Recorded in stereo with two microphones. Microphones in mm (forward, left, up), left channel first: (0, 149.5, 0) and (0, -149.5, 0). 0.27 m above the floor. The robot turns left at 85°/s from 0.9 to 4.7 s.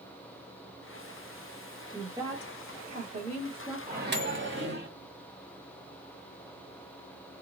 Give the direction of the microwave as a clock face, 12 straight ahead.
1 o'clock.